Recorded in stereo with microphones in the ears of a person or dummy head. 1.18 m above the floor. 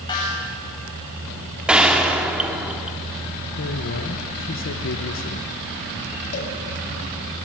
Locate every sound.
0.1 s a snare drum: 20° left (ahead or behind), 8.5 m
1.7 s a gunshot: 5° right (ahead or behind), 1.7 m
3.6 s a man speaking: 55° left (ahead or behind), 1.3 m
6.3 s a cowbell: 45° left (ahead or behind), 4 m